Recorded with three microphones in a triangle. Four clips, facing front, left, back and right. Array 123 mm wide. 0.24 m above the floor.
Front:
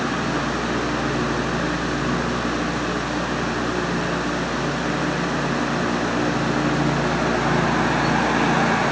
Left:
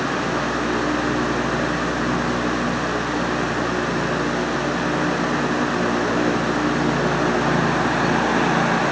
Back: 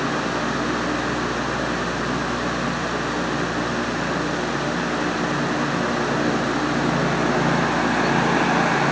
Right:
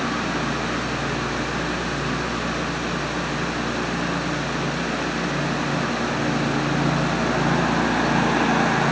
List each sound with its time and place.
Only background noise.